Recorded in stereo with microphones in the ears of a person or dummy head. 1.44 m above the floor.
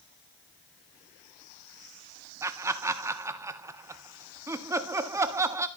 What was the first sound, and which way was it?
Laughter, 15° right (ahead or behind).